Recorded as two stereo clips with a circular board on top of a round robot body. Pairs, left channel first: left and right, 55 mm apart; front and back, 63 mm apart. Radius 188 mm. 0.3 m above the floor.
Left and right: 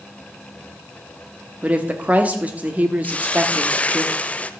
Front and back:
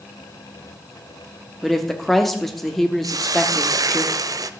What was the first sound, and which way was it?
A woman speaking, 80° right.